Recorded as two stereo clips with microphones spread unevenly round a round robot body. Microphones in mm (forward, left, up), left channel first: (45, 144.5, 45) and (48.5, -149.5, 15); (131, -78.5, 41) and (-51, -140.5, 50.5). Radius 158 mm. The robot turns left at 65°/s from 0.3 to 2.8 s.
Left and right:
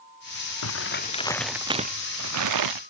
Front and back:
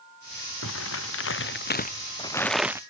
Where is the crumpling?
55° left; by 2.8 s 85° right.